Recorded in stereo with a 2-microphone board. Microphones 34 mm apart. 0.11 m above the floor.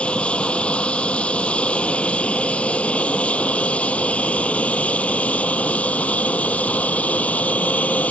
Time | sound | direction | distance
0.0 | an aircraft | 35° left (ahead or behind) | ?